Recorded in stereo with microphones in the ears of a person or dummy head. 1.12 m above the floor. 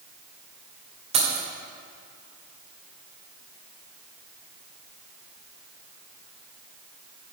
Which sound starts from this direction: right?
Keys jangling, at 1.1 s.